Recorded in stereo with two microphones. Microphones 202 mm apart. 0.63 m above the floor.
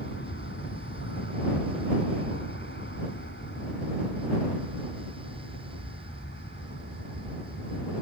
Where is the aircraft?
65° left (ahead or behind).